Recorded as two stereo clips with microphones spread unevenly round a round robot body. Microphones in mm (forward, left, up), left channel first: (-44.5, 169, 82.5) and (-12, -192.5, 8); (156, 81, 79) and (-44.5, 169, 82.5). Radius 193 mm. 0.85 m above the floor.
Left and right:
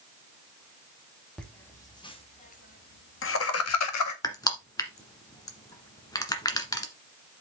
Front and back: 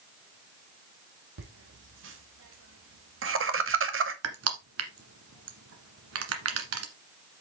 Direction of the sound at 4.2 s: 170° left.